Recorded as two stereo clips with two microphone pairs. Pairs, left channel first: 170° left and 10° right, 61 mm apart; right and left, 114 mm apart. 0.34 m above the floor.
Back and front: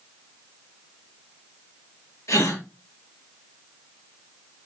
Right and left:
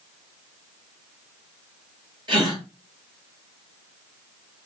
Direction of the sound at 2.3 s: 140° left.